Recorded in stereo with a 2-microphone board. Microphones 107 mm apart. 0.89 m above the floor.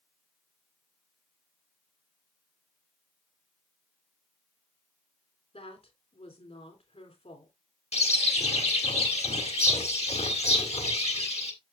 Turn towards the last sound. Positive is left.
turn(degrees=85)